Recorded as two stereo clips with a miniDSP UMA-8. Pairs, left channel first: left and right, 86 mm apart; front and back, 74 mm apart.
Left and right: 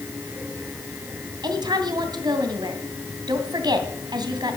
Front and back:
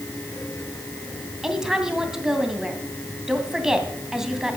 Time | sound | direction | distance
1.4 | a woman speaking | 100° right | 2.5 m